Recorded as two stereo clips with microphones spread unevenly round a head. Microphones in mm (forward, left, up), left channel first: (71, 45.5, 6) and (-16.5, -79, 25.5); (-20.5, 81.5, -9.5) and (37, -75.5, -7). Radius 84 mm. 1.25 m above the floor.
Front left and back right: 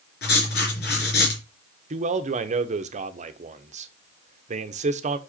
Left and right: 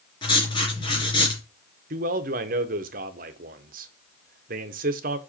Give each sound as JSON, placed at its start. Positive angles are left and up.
{"t": 0.2, "sound": "writing", "azimuth_deg": 50, "distance_m": 3.5}
{"t": 1.9, "sound": "a man speaking", "azimuth_deg": -95, "distance_m": 0.9}